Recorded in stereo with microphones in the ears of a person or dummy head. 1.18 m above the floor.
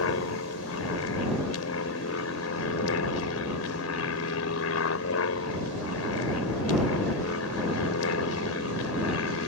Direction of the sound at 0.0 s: 75° left (ahead or behind).